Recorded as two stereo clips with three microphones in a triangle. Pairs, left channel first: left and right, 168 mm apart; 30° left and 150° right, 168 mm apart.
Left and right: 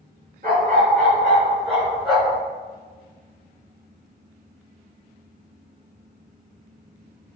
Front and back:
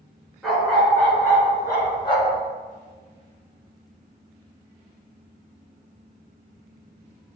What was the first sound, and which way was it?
A dog barking, 60° right.